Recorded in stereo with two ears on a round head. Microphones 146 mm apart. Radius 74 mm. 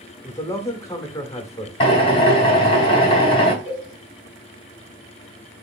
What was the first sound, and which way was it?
A man speaking, 20° left (ahead or behind).